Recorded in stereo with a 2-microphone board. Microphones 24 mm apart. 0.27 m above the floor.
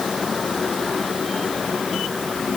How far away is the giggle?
No giggle in this recording.